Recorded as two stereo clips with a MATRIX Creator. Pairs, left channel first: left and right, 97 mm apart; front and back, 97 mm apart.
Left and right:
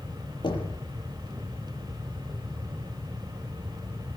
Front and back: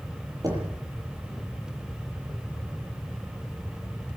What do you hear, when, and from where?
0.4 s knocking: 130° left, 8.5 m